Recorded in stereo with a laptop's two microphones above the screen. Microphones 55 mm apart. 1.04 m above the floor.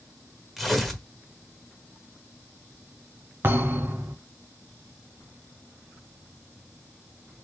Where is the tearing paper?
Centre (ahead or behind), 1.4 m.